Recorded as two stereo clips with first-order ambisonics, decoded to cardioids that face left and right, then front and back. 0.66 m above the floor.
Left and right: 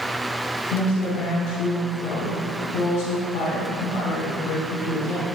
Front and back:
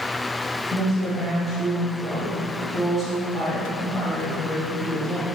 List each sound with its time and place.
0.7 s a woman speaking: 95° left, 3.5 m